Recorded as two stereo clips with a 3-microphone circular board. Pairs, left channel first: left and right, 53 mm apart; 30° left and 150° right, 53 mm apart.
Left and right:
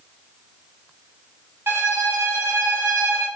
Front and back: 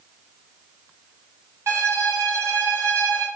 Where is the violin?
125° right, 1.9 m.